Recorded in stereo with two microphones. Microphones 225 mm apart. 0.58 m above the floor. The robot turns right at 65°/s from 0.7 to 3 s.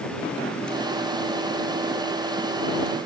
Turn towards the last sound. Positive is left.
No sound to turn to.